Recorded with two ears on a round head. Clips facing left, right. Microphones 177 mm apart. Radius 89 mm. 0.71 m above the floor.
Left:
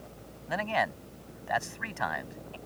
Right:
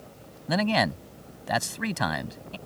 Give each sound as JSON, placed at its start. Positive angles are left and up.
{"t": 0.5, "sound": "a man speaking", "side_deg": -50}